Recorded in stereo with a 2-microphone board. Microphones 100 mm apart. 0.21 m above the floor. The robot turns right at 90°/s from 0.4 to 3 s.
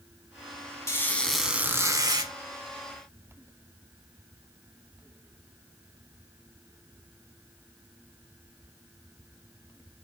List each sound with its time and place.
0.9 s a squeak: 135° left, 1.1 m; by 2.3 s 95° right, 1.1 m